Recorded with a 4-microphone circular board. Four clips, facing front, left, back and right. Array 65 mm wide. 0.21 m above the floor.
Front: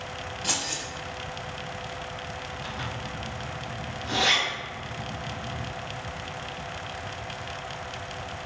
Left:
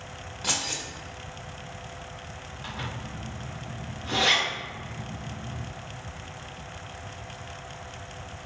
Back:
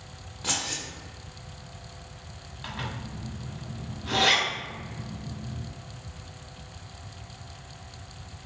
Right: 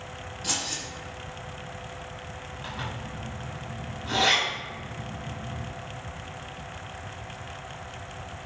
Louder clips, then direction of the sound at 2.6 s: Even, back 2 dB; 175° right.